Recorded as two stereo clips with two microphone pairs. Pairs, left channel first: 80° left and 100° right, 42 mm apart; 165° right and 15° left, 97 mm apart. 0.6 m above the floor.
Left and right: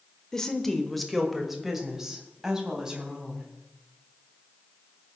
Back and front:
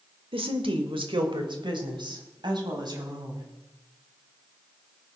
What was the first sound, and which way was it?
A woman speaking, 5° left.